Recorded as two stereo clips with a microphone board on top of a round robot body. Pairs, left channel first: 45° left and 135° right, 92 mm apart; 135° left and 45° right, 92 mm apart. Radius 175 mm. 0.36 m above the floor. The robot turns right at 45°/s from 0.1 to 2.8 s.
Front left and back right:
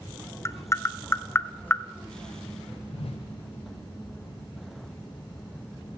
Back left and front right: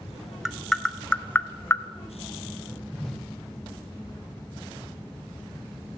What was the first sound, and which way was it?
Tapping, 40° left.